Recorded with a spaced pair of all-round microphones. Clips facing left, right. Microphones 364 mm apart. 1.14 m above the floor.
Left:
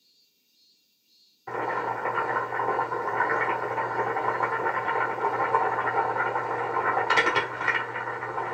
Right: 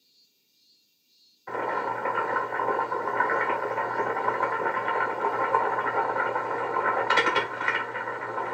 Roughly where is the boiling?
Left.